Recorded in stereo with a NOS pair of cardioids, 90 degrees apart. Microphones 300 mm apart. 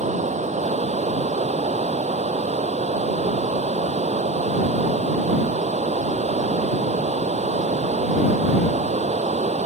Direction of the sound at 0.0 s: 25° right.